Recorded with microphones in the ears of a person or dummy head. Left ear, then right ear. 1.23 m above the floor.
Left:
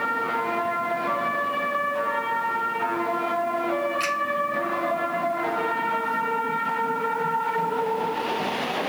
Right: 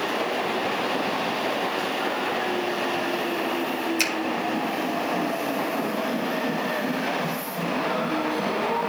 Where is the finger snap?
80° right, 5 m.